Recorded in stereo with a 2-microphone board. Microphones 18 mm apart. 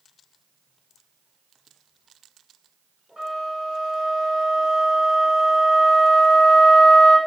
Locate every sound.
3.2 s a flute: 70° right (ahead or behind), 1.2 m